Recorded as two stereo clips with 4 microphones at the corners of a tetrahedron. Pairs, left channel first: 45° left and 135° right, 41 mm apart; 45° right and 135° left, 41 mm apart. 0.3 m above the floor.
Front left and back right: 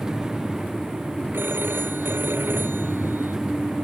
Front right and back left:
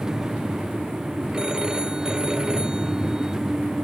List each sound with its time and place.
1.3 s a phone ringing: 155° right